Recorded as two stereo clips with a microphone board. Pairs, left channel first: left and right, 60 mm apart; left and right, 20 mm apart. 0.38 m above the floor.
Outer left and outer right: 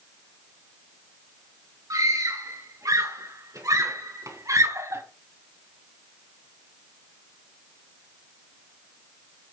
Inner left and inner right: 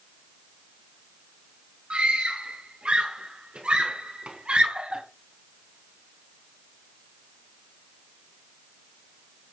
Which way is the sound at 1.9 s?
75° right (ahead or behind).